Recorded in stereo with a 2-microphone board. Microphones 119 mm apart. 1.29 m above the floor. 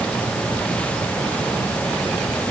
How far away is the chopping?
No chopping in this recording.